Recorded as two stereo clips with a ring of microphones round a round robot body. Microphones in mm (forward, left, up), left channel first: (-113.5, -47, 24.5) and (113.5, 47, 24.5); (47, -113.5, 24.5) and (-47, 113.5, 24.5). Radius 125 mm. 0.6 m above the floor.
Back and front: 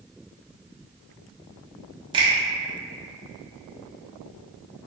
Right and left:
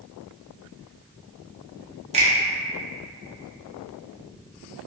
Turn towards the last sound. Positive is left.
turn(degrees=75)